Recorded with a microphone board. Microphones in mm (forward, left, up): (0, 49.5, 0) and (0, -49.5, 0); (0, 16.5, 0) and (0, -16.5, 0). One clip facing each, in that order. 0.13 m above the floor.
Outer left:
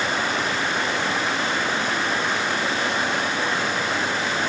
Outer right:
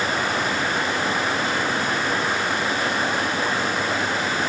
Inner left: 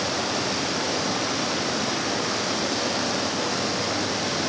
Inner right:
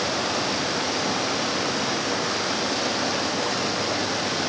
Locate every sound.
0.0 s running water: 5° right (ahead or behind), 6.5 m